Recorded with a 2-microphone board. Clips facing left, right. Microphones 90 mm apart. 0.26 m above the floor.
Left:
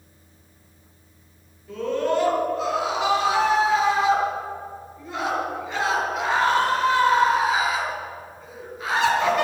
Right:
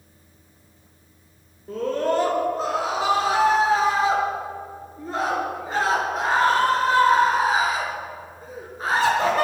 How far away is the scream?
About 5 m.